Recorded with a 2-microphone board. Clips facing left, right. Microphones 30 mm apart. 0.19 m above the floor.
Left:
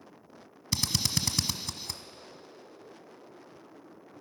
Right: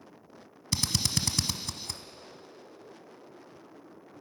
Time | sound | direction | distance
0.7 | a drill | 5° left (ahead or behind) | 1.0 m